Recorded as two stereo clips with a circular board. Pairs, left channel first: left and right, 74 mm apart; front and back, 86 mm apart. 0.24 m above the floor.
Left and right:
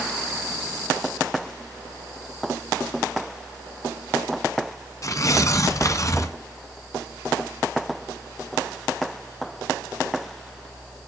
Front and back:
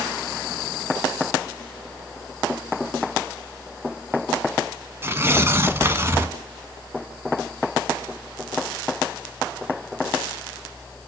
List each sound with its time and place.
5.0 s tearing paper: 125° left, 1.8 m